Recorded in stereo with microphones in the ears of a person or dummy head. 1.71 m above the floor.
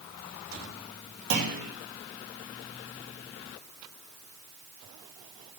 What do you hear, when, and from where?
1.3 s a clunk: 65° right (ahead or behind), 1.5 m